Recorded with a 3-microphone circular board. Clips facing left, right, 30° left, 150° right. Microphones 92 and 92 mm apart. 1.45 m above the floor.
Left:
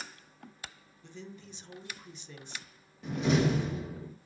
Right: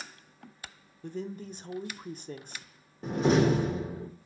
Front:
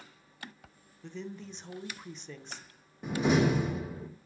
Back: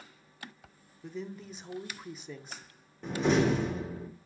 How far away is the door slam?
About 1.0 m.